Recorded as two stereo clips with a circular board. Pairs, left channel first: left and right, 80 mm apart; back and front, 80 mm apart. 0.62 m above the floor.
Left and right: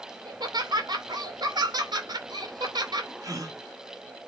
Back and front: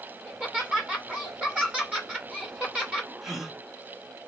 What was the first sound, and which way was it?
Laughter, 75° right.